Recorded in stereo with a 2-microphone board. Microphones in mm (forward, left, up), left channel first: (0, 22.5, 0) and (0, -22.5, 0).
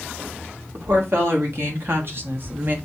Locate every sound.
0.7 s a woman speaking: 60° right (ahead or behind), 2 m; by 2.8 s 40° right (ahead or behind), 0.8 m